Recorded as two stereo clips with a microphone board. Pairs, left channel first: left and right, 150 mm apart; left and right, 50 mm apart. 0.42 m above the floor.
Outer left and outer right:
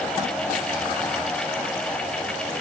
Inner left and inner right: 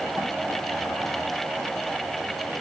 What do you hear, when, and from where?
Only background noise.